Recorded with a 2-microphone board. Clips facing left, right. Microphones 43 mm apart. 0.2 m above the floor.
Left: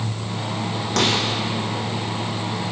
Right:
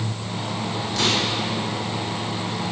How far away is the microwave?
About 7.5 m.